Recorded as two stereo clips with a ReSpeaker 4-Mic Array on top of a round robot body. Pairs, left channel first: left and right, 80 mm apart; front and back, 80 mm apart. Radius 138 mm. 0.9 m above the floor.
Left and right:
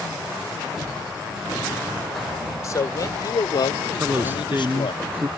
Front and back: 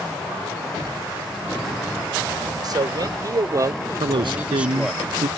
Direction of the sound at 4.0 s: 155° right.